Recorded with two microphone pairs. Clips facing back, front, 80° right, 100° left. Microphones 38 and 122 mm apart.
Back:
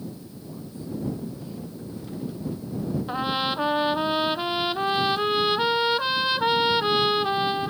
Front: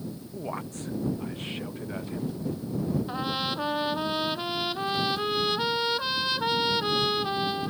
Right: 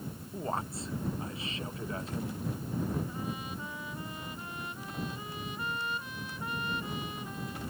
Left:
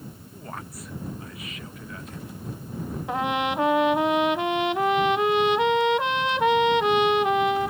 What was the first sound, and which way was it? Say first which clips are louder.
A man speaking: front 4 dB, right 5 dB; 15° right.